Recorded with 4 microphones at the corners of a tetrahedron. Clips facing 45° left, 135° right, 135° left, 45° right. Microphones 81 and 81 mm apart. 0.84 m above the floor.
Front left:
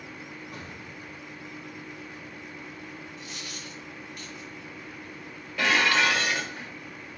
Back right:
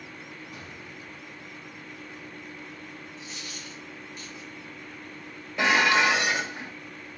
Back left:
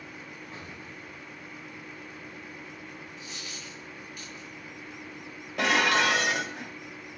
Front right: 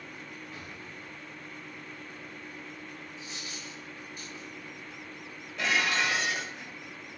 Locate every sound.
0.5 s an explosion: 75° left, 1.8 m
3.2 s a dropped coin: 10° left, 3.5 m
5.6 s dishes clattering: 155° left, 0.8 m